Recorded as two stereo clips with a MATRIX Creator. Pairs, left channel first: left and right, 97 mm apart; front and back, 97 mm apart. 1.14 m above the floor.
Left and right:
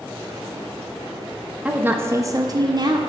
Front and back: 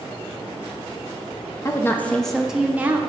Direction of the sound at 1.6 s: 20° right.